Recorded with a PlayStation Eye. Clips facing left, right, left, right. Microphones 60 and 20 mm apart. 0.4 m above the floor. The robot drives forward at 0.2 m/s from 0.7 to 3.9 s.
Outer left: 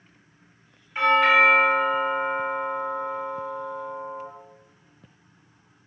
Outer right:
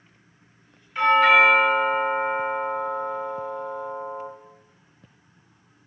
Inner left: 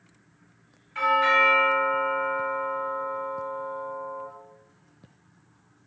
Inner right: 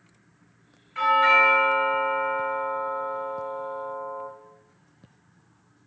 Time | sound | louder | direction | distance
0.9 | a doorbell | outer right 2 dB, inner right 2 dB | 20° left (ahead or behind) | 1.3 m